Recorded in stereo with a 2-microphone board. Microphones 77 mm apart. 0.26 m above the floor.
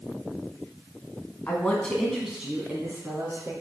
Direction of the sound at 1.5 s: 25° left (ahead or behind).